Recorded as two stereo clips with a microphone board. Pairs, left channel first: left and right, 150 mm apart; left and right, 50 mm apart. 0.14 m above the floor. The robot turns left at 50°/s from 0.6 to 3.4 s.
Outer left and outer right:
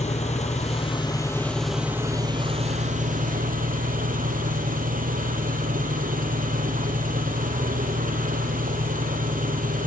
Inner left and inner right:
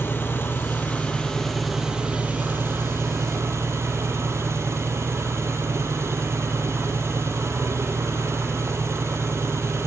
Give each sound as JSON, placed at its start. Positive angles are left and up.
{"t": 0.0, "sound": "an engine running", "azimuth_deg": 55, "distance_m": 3.0}